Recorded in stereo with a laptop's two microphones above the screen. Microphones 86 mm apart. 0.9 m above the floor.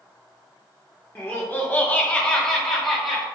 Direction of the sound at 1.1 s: 25° left (ahead or behind).